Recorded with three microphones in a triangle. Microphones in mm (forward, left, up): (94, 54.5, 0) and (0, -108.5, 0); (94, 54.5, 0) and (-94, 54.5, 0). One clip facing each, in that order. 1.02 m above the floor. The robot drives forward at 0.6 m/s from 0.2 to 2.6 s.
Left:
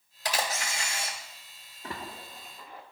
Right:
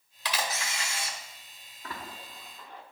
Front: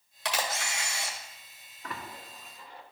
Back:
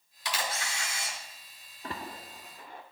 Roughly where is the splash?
Behind left.